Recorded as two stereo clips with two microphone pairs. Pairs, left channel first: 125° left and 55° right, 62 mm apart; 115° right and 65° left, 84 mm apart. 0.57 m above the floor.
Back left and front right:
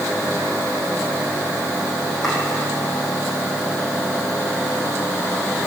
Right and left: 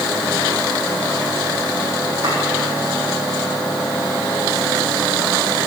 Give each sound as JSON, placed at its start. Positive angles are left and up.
{"t": 2.2, "sound": "chopping", "azimuth_deg": 40, "distance_m": 7.0}